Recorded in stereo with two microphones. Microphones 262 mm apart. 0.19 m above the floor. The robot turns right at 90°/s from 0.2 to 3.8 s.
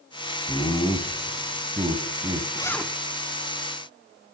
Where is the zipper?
155° left, 0.5 m; by 2.9 s 170° right, 0.5 m.